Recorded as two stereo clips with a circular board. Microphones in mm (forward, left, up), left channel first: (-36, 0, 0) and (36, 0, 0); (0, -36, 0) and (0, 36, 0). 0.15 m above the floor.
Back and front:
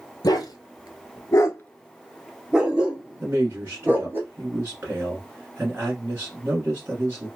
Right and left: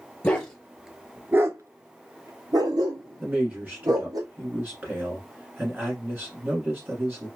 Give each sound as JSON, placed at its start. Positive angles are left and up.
{"t": 0.2, "sound": "a dog barking", "azimuth_deg": -165, "distance_m": 0.9}
{"t": 3.2, "sound": "a man speaking", "azimuth_deg": 40, "distance_m": 1.3}